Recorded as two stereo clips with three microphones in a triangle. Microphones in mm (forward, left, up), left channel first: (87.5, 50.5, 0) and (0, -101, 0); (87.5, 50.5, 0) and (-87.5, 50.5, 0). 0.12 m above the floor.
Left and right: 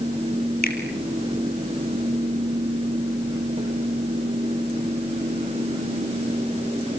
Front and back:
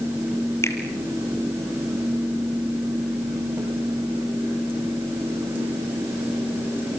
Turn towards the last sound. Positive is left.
turn(degrees=75)